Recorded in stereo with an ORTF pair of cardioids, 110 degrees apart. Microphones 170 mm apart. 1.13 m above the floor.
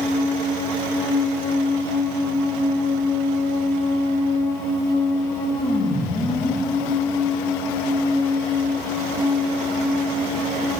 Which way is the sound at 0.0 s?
20° left.